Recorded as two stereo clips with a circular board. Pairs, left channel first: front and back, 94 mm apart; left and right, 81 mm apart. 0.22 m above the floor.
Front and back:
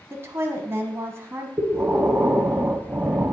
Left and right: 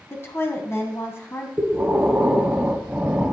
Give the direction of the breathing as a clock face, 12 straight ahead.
5 o'clock.